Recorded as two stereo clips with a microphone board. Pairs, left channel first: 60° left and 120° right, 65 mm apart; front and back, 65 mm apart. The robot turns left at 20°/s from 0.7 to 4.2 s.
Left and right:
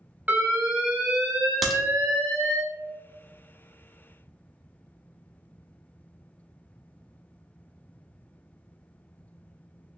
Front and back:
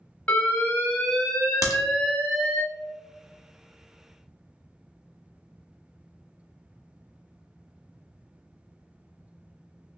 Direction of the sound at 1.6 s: 30° right.